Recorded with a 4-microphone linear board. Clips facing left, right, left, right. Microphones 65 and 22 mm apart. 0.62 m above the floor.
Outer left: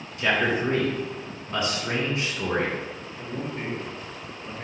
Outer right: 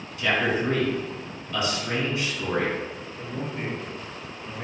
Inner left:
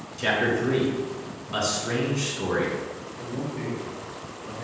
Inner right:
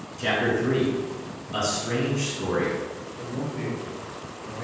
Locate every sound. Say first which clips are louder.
0.2 s a man speaking: outer left 1 dB, even; 35° left (ahead or behind), 1.8 m
3.2 s a man speaking: even, inner right 1 dB; 10° left (ahead or behind), 0.9 m